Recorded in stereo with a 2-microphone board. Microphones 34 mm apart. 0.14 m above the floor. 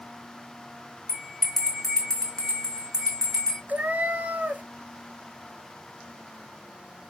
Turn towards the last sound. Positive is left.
turn(degrees=-65)  # may be behind; listen again after turning